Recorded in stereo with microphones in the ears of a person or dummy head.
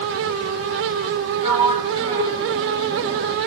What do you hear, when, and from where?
1.4 s a sliding door: 25° right (ahead or behind), 0.8 m